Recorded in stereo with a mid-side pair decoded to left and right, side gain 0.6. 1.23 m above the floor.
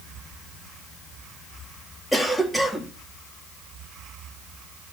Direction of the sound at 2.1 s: 5° left.